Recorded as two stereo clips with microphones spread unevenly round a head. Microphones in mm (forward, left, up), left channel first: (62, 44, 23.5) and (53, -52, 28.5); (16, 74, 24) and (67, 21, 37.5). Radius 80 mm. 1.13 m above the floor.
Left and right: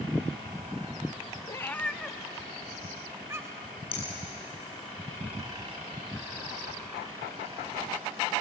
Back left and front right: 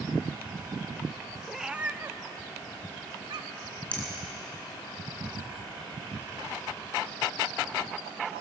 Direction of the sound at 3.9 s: 60° left.